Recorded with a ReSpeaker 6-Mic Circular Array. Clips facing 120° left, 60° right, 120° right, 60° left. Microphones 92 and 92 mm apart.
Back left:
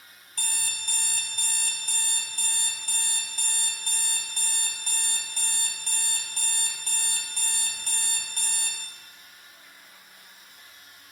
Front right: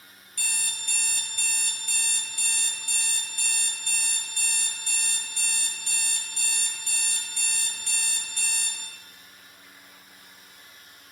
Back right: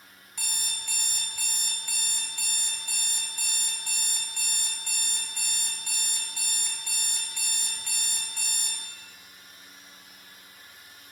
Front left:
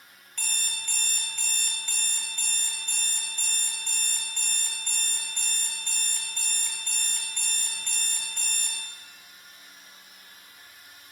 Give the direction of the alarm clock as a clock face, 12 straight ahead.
7 o'clock.